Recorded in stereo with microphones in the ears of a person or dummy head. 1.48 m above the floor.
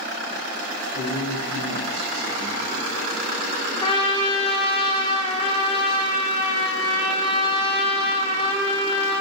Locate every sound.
0.9 s a man speaking: 55° right (ahead or behind), 1.2 m; by 2.9 s 20° right (ahead or behind), 1.1 m
3.8 s a trumpet: 30° left (ahead or behind), 0.5 m